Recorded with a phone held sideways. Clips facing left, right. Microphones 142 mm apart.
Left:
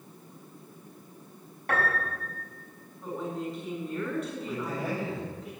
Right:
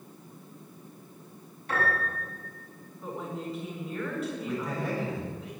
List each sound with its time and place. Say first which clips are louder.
1.7 s a piano: even; 60° left (ahead or behind), 5.5 m
3.0 s a woman speaking: left 2 dB; 5° right (ahead or behind), 8.5 m
4.5 s a man speaking: right 1 dB; 5° left (ahead or behind), 6.5 m